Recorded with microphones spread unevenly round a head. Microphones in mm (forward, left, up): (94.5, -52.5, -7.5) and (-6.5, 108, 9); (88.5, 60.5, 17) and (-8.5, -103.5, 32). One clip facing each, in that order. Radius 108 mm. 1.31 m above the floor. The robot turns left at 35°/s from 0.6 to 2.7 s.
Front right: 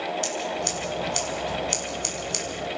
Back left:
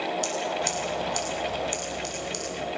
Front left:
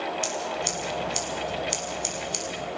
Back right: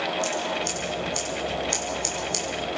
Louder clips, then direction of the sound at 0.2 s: Even, back right 2 dB; 20° left.